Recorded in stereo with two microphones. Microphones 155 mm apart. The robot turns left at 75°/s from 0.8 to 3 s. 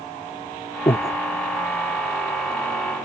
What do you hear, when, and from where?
0.9 s breathing: 35° left (ahead or behind); by 1.2 s 40° left (ahead or behind)